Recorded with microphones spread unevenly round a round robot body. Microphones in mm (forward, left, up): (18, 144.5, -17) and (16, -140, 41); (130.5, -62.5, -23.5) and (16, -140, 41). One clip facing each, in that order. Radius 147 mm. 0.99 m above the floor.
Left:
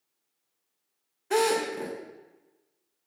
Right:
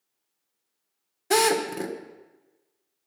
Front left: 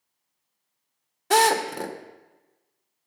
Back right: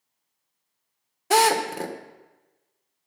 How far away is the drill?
About 2.0 m.